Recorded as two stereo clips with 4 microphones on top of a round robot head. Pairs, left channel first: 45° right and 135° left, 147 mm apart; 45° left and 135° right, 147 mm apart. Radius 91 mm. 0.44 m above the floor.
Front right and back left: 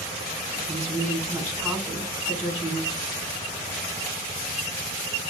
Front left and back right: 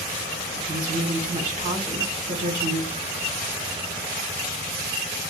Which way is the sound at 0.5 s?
155° right.